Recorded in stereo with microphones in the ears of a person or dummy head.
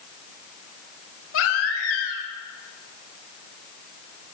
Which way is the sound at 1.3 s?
80° left.